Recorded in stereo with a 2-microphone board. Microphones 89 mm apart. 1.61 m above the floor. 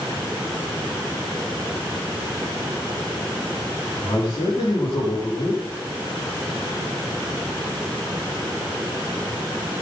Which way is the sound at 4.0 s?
55° left (ahead or behind).